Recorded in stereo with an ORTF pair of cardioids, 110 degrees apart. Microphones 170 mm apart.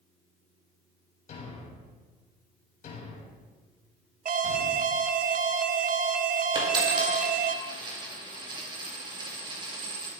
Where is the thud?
55° left, 3.5 m.